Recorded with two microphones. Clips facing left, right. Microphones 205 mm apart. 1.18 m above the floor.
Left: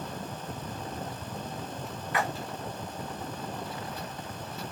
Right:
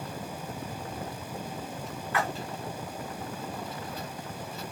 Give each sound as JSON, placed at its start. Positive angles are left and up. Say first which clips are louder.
{"t": 2.1, "sound": "a splash", "louder": "even", "side_deg": 15, "distance_m": 1.3}